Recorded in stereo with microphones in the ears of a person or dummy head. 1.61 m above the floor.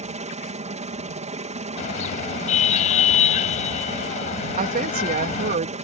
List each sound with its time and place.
0.0 s a helicopter: 35° right (ahead or behind)
1.8 s a car horn: 40° left (ahead or behind)
4.6 s a woman speaking: 40° right (ahead or behind)